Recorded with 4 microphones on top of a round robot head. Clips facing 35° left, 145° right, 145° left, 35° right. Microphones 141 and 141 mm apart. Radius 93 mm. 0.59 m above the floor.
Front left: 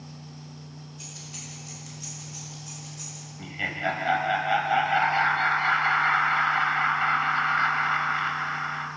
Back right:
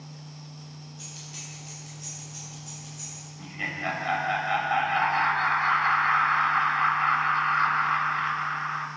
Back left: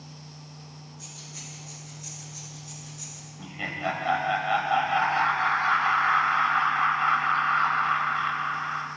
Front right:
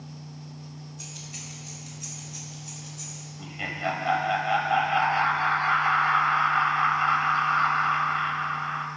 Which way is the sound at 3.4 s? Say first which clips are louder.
Front left 3 dB, even; 50° left.